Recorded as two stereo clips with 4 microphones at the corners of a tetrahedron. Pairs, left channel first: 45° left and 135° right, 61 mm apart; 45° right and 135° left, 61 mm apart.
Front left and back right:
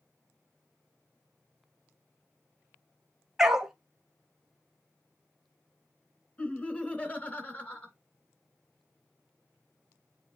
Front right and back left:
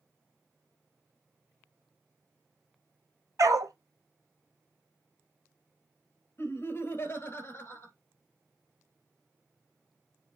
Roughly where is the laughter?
Ahead.